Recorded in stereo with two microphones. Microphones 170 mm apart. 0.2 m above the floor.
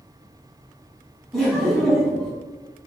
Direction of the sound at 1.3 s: Centre (ahead or behind).